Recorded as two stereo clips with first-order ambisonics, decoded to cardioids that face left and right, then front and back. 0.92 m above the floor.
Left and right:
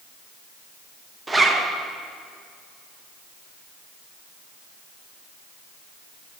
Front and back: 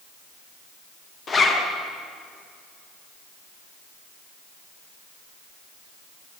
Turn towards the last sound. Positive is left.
turn(degrees=-30)